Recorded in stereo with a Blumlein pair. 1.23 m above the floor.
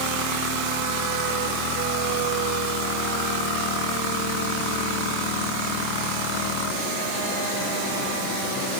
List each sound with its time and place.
Only background noise.